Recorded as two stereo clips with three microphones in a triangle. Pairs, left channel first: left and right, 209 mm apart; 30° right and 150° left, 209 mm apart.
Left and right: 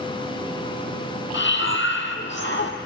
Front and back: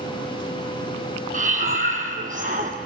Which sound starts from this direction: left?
Breathing, at 1.3 s.